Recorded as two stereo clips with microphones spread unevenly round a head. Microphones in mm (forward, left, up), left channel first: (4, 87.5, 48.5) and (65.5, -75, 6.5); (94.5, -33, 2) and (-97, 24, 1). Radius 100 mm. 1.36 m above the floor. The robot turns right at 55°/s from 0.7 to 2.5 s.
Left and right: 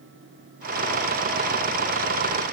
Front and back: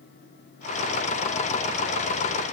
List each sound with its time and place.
Only background noise.